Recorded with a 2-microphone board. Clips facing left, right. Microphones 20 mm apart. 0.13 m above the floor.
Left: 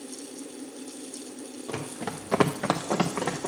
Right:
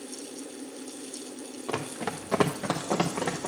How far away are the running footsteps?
About 0.9 m.